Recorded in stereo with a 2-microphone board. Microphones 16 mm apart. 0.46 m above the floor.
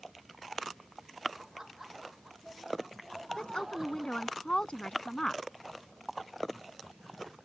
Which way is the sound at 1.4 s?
25° right (ahead or behind).